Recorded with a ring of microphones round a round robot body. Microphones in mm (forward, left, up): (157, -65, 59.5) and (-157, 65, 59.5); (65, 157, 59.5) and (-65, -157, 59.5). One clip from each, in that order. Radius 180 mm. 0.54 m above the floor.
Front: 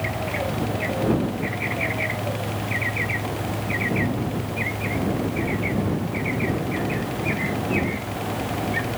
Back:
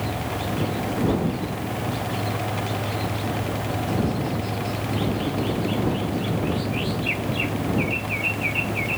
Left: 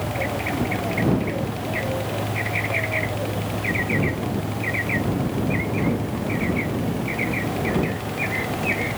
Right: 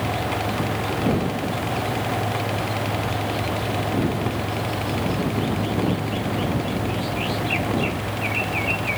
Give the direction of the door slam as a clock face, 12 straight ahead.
I don't hear a door slam.